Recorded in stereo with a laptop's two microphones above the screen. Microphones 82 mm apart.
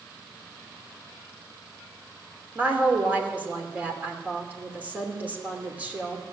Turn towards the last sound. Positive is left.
turn(degrees=-20)  # may be behind; listen again after turning